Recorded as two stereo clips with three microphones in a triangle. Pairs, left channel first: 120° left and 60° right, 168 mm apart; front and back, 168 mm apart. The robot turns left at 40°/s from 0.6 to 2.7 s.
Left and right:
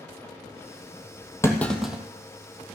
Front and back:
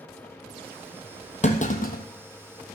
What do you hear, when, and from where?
1.4 s a clunk: 45° left, 1.3 m; by 2.0 s 20° left, 1.3 m